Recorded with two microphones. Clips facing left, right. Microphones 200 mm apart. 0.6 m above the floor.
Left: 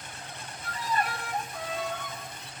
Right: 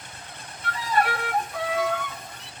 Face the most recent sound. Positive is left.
turn(degrees=-75)  # may be behind; listen again after turning